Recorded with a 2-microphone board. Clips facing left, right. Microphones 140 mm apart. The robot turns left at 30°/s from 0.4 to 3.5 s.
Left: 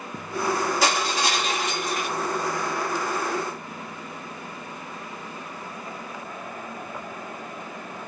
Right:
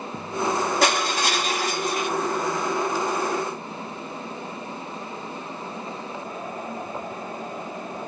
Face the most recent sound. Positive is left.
turn(degrees=160)